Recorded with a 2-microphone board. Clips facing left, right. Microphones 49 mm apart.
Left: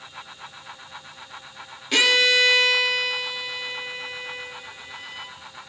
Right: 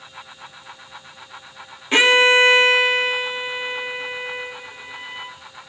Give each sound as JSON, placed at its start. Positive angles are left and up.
{"t": 1.9, "sound": "a violin", "side_deg": -25, "distance_m": 0.6}